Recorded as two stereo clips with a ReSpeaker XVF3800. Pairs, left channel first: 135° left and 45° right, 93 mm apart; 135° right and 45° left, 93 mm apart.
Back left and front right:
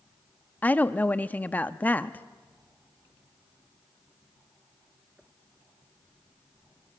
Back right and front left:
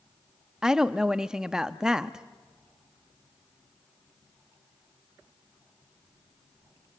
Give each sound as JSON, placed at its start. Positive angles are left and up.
{"t": 0.6, "sound": "a woman speaking", "azimuth_deg": 110, "distance_m": 0.5}